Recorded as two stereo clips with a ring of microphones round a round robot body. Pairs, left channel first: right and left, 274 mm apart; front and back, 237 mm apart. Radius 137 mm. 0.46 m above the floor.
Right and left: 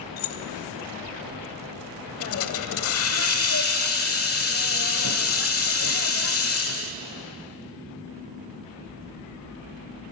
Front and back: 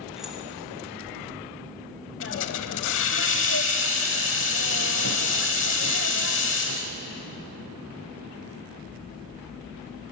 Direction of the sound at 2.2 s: 50° right.